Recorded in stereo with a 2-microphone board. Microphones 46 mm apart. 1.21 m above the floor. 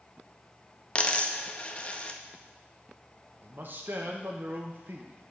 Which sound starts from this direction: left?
A dropped coin, at 0.9 s.